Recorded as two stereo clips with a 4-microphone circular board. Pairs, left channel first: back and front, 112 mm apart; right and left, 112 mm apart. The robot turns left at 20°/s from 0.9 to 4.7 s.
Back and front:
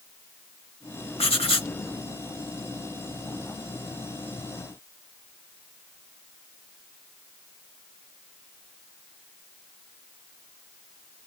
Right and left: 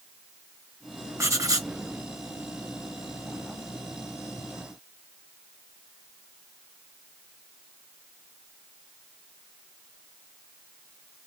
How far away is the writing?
About 0.9 m.